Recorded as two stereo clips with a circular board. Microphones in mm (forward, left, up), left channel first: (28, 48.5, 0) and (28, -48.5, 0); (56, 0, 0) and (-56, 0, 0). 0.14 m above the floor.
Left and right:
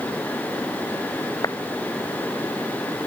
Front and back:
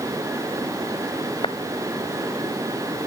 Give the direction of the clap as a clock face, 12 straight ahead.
11 o'clock.